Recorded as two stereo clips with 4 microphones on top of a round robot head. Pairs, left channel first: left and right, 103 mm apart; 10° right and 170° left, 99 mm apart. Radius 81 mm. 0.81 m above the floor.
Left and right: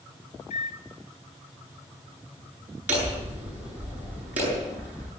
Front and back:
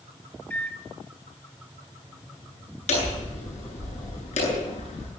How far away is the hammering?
About 9 m.